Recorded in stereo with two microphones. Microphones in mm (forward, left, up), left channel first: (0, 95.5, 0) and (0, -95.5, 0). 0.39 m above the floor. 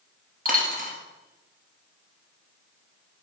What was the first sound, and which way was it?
A dropped coin, 45° right (ahead or behind).